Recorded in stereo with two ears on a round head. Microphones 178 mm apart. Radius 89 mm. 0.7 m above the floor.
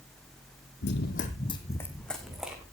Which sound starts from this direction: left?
Running footsteps, at 0.8 s.